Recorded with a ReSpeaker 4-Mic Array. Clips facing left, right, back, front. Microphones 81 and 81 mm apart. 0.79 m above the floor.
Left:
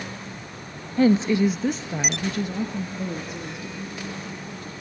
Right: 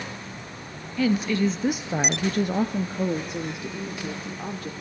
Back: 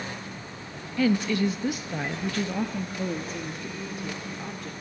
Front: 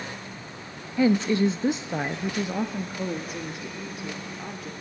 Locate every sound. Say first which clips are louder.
1.0 s a woman speaking: left 4 dB, front 3 dB; 60° left, 0.7 m; by 4.7 s 90° right, 2 m